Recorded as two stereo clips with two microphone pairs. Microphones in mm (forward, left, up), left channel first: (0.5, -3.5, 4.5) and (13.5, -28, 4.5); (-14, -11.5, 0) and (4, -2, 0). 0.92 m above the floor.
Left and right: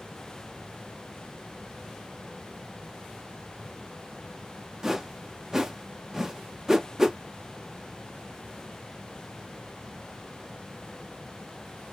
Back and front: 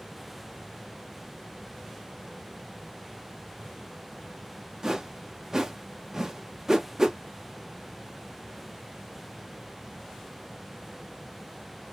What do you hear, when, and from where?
4.8 s a whoosh: straight ahead, 0.7 m